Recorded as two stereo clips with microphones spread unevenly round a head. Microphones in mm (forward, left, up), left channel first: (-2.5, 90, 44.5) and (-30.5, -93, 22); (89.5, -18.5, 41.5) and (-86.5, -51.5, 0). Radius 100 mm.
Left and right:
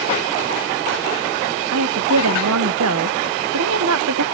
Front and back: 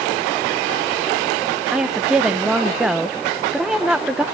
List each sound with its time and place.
1.7 s a woman speaking: 80° right, 0.9 m